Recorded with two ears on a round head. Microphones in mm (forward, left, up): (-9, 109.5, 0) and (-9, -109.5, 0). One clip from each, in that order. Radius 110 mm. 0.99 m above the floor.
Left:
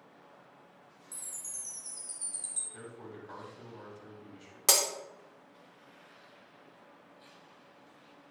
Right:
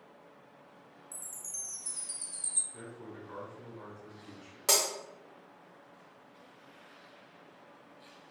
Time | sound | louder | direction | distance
1.1 | a chime | right 2 dB | 5° right (ahead or behind) | 1.2 m
2.7 | a man speaking | even | 50° left (ahead or behind) | 2 m
4.7 | breaking glass | left 1 dB | 30° left (ahead or behind) | 0.7 m